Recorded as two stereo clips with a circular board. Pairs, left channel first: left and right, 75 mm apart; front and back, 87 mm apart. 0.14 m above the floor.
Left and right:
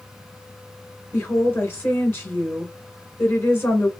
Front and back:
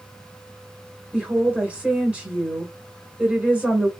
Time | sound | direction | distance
1.1 | a woman speaking | 125° left | 1.6 m